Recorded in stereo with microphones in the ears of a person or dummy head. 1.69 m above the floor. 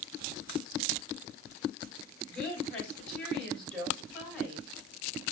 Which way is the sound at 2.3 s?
10° left (ahead or behind).